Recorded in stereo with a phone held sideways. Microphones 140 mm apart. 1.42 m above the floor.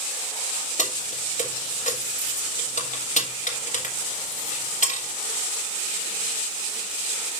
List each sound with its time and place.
0.8 s keys jangling: 60° left (ahead or behind), 3 m